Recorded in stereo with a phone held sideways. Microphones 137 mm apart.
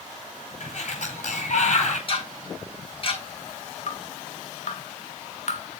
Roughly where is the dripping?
Left.